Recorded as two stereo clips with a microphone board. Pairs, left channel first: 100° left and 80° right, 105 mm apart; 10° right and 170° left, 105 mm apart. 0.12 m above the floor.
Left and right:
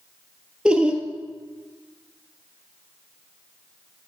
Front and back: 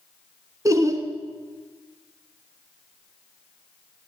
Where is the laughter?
155° right, 1.3 m.